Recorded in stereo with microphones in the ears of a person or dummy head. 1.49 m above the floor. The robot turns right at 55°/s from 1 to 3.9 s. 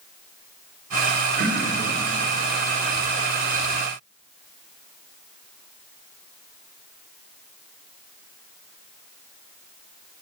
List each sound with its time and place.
1.4 s throat clearing: 55° right (ahead or behind), 0.8 m; by 1.9 s 25° right (ahead or behind), 0.8 m